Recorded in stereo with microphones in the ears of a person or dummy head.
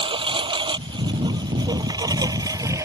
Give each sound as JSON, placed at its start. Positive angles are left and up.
{"t": 0.0, "sound": "a lawn mower", "side_deg": -30}